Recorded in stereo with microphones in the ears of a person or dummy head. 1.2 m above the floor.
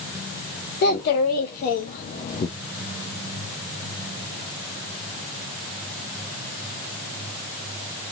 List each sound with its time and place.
0.8 s a child speaking: 55° left (ahead or behind), 1.7 m; by 2.5 s 30° left (ahead or behind), 0.6 m